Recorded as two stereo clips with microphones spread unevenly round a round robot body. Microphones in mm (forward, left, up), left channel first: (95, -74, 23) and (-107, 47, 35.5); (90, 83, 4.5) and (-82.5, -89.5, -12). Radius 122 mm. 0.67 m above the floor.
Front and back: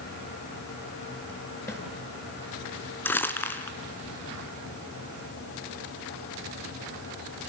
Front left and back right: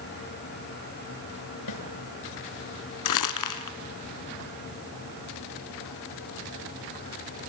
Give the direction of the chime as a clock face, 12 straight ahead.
I don't hear a chime.